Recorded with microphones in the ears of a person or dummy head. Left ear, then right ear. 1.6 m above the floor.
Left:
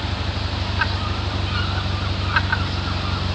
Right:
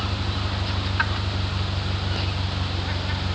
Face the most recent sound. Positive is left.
turn(degrees=70)  # may be behind; listen again after turning